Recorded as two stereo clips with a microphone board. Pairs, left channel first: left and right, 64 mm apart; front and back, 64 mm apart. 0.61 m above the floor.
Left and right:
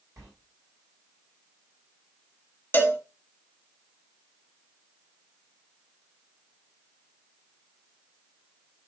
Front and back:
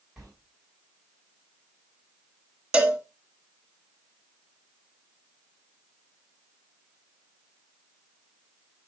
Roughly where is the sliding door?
Right.